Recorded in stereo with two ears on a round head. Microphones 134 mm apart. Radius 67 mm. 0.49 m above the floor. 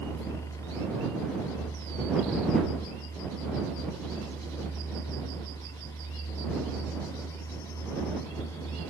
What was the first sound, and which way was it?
Only background noise.